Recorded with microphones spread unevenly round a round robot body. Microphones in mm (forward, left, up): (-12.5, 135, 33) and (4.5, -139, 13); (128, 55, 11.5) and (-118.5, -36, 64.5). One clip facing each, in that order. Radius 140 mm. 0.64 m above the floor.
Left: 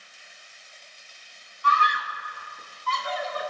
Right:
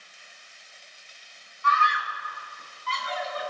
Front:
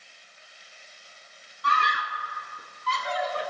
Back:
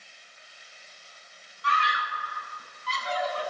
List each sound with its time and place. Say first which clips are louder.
1.6 s a scream: left 1 dB, front 1 dB; 40° left, 1.2 m; by 3.5 s 50° left, 2.5 m